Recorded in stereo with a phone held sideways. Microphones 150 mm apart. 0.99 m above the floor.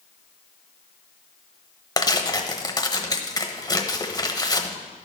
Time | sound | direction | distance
2.0 | tearing paper | 25° left (ahead or behind) | 1.0 m